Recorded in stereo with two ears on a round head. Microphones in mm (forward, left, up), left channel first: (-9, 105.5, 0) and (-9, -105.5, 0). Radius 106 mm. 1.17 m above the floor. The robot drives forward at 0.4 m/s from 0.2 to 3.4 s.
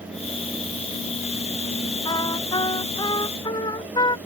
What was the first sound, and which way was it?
A trumpet, 15° left (ahead or behind).